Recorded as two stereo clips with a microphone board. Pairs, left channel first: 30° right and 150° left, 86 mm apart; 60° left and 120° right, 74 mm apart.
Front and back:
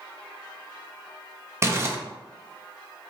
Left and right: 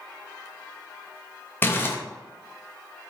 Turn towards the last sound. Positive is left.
turn(degrees=110)